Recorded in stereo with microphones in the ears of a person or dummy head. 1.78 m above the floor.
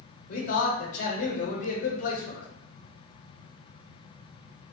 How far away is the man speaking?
About 1.0 m.